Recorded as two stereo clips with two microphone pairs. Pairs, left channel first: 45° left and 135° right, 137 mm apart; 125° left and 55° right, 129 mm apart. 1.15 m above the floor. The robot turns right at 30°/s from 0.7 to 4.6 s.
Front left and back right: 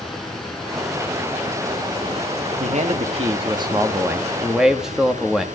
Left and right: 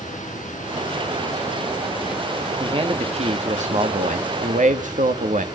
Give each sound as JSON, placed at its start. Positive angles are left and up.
{"t": 0.0, "sound": "running water", "azimuth_deg": 130, "distance_m": 6.0}
{"t": 2.6, "sound": "a man speaking", "azimuth_deg": -110, "distance_m": 2.0}